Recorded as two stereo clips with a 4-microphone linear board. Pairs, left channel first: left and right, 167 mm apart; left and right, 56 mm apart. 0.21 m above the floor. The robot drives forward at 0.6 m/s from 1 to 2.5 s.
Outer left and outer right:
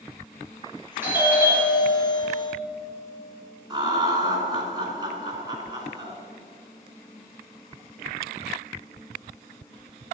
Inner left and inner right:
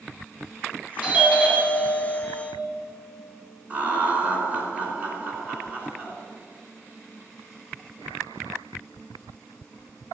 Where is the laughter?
25° right (ahead or behind), 2.5 m.